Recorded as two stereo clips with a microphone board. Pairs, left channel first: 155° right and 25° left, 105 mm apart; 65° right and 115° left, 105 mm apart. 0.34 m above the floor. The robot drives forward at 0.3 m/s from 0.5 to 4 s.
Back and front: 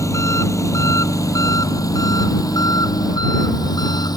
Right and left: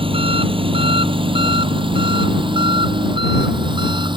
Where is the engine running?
145° left; by 4.2 s 155° left.